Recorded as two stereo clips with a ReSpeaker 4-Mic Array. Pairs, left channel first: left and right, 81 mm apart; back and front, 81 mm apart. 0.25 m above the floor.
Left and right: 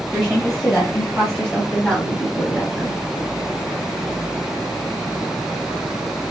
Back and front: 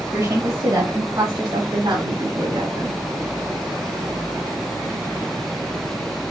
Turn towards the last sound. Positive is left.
turn(degrees=5)